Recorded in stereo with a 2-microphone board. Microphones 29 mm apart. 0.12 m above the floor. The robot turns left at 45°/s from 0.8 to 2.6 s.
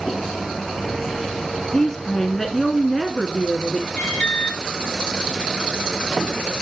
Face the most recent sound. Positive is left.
turn(degrees=50)  # may be behind; listen again after turning